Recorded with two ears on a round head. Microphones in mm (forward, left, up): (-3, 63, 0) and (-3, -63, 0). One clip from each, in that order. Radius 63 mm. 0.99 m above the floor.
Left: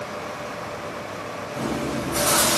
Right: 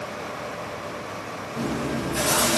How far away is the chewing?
About 2 m.